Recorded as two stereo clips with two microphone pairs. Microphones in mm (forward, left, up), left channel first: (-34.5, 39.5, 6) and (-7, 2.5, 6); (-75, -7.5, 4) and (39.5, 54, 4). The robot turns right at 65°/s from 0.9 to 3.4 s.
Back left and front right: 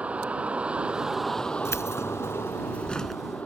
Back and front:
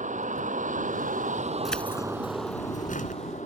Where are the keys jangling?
115° left; by 3.2 s 140° right.